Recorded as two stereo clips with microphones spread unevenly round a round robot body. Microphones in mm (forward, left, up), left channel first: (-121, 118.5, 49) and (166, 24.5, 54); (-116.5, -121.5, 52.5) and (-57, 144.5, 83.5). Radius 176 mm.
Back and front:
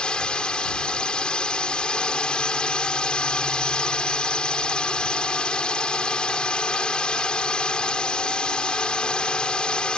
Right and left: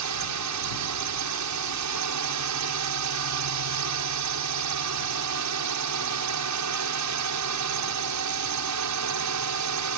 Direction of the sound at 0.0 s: 75° left.